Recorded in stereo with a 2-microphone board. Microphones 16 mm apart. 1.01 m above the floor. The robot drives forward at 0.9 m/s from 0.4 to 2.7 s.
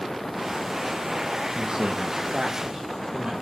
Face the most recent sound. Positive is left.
turn(degrees=-35)  # may be behind; listen again after turning